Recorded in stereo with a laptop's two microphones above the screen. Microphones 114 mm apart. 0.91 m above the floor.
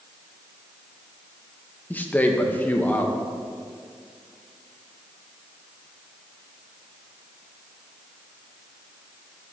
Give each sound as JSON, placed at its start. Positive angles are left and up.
{"t": 1.9, "sound": "a man speaking", "side_deg": 15, "distance_m": 0.9}